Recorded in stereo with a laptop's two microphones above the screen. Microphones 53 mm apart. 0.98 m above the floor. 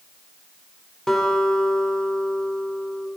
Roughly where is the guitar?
Centre.